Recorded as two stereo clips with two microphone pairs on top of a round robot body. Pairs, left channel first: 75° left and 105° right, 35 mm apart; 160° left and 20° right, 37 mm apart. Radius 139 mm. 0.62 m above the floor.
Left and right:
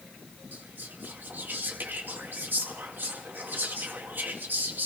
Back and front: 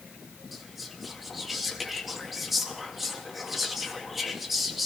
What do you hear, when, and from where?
0.5 s whispering: 100° right, 2 m